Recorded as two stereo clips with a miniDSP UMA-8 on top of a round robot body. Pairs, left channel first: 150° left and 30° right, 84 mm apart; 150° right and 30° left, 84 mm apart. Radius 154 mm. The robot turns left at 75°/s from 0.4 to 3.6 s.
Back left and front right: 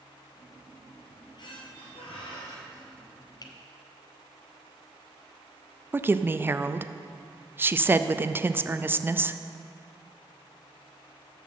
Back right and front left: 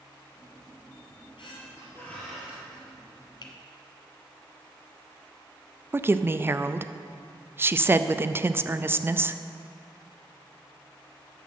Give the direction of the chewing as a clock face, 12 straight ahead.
I don't hear chewing.